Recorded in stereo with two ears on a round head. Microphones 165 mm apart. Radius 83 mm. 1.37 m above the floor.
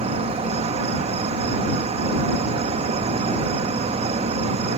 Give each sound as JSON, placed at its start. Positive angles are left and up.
{"t": 0.0, "sound": "an insect", "side_deg": -30}